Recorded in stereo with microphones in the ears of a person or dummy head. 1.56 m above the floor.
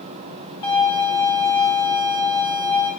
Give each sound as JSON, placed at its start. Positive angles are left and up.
{"t": 0.6, "sound": "a violin", "side_deg": 15, "distance_m": 1.7}